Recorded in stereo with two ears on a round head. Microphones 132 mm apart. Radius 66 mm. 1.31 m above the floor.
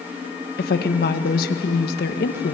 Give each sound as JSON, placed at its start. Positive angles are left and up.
{"t": 0.6, "sound": "a woman speaking", "side_deg": 70, "distance_m": 1.7}